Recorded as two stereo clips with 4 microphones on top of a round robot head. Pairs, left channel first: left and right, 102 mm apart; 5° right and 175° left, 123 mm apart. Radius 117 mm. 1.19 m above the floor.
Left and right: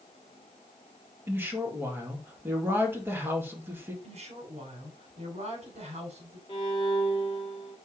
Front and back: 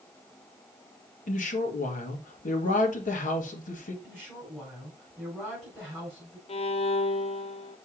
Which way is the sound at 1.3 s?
20° right.